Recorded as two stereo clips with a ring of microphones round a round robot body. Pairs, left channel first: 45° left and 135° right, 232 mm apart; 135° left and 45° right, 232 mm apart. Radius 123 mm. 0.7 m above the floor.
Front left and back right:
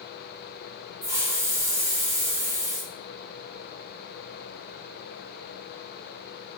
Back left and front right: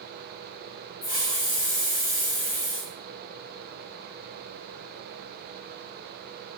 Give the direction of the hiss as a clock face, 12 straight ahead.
7 o'clock.